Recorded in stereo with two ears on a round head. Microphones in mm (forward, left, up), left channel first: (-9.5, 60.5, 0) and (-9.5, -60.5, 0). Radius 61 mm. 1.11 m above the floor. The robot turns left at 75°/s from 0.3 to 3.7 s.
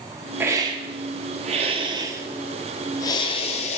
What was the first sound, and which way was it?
A hiss, 20° right.